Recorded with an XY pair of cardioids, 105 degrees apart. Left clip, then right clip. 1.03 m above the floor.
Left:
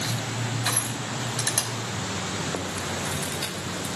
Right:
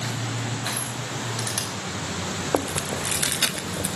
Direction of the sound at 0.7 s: 35° left.